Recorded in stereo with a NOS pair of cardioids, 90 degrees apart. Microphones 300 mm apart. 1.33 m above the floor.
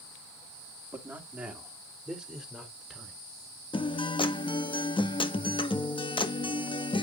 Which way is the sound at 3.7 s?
15° left.